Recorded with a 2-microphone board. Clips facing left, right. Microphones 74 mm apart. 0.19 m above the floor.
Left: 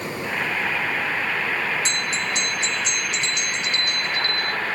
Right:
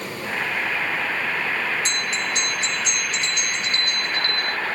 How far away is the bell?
About 1.5 m.